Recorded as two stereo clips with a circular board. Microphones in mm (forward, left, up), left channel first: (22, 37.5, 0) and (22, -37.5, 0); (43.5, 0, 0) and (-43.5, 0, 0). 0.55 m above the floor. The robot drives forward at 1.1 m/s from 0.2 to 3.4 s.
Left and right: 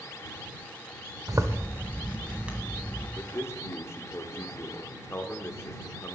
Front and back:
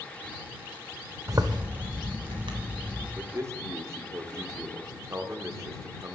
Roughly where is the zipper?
Behind right.